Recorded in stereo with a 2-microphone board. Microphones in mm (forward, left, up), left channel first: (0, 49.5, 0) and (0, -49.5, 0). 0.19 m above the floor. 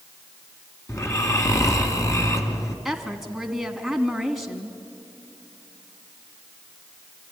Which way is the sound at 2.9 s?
Centre (ahead or behind).